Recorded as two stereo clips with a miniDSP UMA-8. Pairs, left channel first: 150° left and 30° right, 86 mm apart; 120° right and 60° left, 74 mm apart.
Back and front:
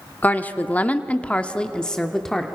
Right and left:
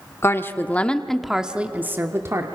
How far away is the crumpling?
I don't hear crumpling.